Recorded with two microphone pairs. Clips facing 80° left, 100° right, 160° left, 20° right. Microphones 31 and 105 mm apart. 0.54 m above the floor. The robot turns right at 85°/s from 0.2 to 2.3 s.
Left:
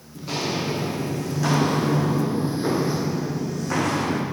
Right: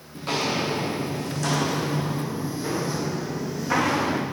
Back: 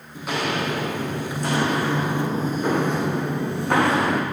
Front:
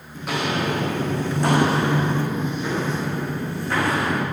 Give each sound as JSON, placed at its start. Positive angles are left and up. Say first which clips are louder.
{"t": 0.1, "sound": "footsteps", "louder": "right 1 dB, front 1 dB", "azimuth_deg": -120, "distance_m": 2.5}